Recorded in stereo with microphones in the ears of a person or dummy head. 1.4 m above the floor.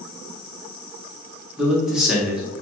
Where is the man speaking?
5° right (ahead or behind), 0.5 m.